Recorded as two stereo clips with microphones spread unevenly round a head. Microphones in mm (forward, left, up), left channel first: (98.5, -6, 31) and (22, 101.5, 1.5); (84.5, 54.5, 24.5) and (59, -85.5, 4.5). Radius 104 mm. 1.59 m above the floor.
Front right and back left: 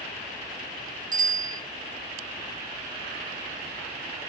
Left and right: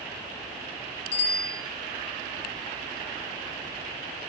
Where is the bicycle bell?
115° left, 6.5 m.